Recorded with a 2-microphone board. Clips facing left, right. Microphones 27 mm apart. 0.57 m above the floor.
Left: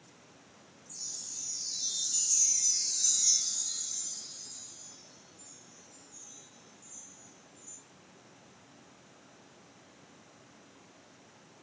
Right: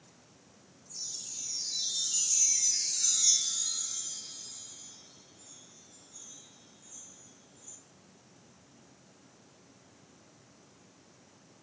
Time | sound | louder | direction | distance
0.9 | a chime | right 2 dB | 65° right (ahead or behind) | 0.8 m